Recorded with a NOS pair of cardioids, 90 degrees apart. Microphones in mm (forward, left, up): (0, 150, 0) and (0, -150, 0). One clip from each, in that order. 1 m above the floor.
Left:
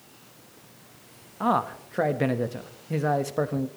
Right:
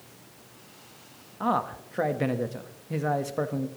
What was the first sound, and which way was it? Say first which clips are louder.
A man speaking: left 2 dB; 15° left.